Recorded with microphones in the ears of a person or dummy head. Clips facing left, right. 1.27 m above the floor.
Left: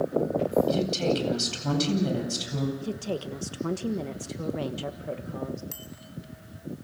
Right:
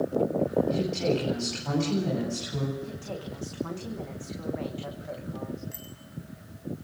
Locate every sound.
0.7 s a woman speaking: 50° left (ahead or behind), 9.5 m
2.8 s a woman speaking: 55° left (ahead or behind), 1.5 m
5.7 s a bicycle bell: 70° left (ahead or behind), 7 m